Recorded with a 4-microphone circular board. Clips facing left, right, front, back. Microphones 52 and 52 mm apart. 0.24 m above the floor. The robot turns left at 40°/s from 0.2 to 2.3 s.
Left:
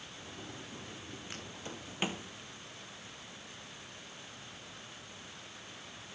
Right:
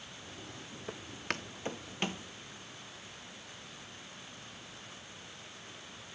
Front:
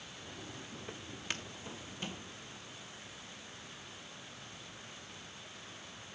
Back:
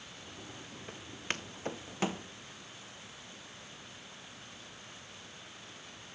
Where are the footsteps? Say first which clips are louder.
Right 7 dB, back 4 dB; 90° right, 1.2 m; by 2.2 s 155° left, 0.8 m.